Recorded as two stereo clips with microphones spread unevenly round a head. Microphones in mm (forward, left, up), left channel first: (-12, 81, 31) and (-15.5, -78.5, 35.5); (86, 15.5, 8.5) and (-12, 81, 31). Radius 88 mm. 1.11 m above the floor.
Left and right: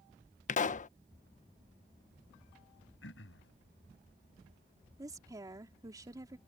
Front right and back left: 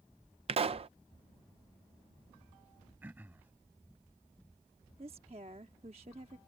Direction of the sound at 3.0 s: 75° left.